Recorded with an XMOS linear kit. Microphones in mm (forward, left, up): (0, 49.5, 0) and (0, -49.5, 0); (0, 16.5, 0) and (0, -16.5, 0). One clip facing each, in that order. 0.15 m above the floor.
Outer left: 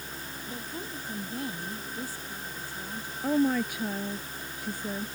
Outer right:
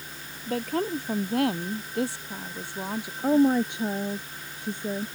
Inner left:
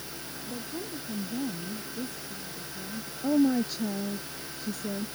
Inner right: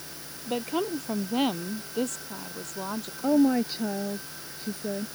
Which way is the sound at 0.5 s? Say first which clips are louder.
Outer right 14 dB, inner right 10 dB; 70° right (ahead or behind).